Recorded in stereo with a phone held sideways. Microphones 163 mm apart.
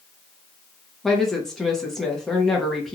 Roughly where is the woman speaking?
Centre.